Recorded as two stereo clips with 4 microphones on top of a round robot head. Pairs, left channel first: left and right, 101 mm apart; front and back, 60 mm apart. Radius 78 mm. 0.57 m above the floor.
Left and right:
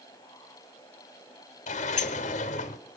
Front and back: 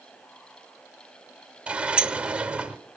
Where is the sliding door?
110° left, 0.7 m.